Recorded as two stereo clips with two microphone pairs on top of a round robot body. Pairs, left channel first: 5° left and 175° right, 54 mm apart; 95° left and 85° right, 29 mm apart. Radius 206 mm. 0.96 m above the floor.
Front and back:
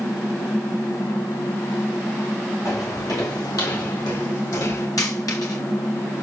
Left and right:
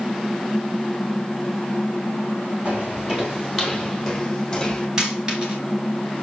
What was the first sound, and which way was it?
Footsteps, 35° right.